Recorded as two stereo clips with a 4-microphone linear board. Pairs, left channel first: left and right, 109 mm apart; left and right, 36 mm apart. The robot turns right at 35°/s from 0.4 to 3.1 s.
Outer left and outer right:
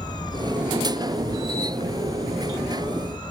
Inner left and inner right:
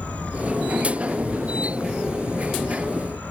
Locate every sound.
0.0 s an insect: 45° left, 2.5 m; by 3.3 s 135° left, 2.5 m